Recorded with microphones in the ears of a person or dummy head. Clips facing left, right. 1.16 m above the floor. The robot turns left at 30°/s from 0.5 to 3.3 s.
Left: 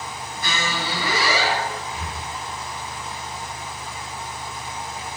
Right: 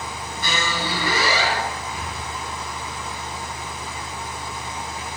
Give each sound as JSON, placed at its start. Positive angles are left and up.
{"t": 0.4, "sound": "a squeak", "azimuth_deg": -115, "distance_m": 2.0}
{"t": 1.9, "sound": "breathing", "side_deg": 0, "distance_m": 1.4}